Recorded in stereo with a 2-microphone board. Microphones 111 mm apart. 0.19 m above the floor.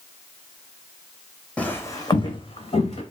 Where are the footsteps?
10° left (ahead or behind), 0.6 m; by 3.0 s 70° left (ahead or behind), 1.1 m.